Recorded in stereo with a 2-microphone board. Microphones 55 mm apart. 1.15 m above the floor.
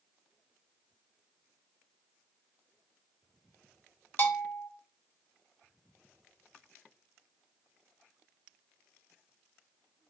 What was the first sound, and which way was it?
A bell, 40° left (ahead or behind).